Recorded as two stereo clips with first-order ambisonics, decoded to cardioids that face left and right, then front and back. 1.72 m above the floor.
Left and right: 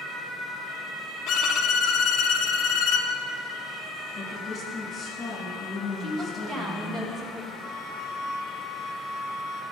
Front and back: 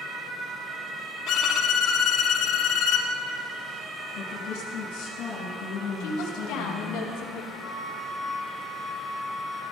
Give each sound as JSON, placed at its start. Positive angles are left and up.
{"t": 1.3, "sound": "a violin", "azimuth_deg": 45, "distance_m": 0.7}
{"t": 4.2, "sound": "a woman speaking", "azimuth_deg": 20, "distance_m": 1.9}
{"t": 6.0, "sound": "a woman speaking", "azimuth_deg": -20, "distance_m": 1.2}
{"t": 7.6, "sound": "a flute", "azimuth_deg": 90, "distance_m": 0.7}